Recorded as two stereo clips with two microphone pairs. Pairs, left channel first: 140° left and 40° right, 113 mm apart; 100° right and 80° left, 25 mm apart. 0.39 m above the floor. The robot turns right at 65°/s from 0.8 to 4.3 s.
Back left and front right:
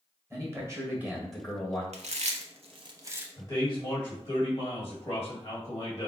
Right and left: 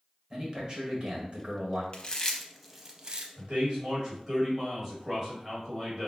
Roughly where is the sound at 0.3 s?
Ahead.